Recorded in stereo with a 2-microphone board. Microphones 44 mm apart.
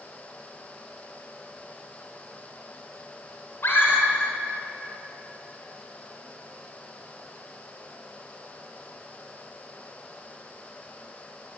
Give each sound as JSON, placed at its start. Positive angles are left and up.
{"t": 3.6, "sound": "a scream", "side_deg": 65, "distance_m": 3.5}